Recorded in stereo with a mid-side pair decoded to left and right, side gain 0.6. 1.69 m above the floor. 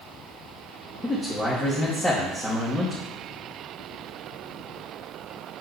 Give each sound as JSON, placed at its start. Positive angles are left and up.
{"t": 1.0, "sound": "a man speaking", "azimuth_deg": 15, "distance_m": 2.5}